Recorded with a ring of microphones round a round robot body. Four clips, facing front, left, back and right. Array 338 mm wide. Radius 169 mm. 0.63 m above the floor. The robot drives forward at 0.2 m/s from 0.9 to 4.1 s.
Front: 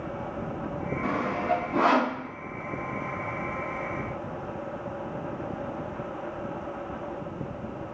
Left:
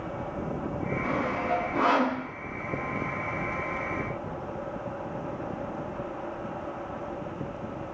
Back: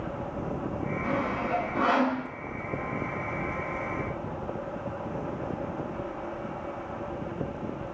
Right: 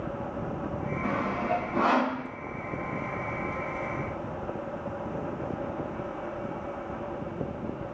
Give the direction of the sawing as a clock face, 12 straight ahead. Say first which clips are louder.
Even, front 3 dB; 12 o'clock.